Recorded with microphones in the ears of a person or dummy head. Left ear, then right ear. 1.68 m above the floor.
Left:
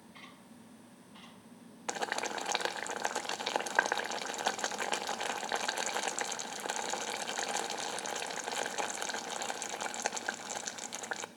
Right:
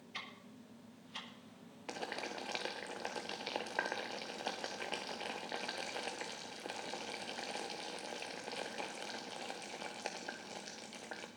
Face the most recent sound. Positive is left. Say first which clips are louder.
# left 7 dB
turn(degrees=45)  # may be behind; listen again after turning